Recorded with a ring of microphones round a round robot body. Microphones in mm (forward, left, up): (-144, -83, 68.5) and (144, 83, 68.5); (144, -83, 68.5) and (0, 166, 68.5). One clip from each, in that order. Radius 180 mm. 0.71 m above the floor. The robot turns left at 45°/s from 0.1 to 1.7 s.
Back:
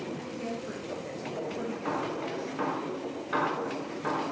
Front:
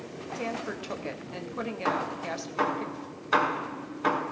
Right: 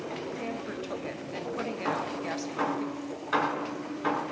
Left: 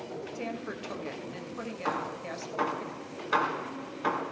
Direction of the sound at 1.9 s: 70° left.